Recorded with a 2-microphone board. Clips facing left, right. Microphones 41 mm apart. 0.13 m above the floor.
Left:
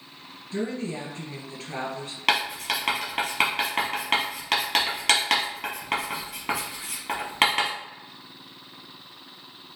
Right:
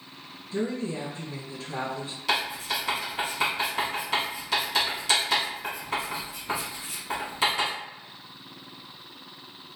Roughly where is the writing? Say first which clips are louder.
Left 3 dB; left.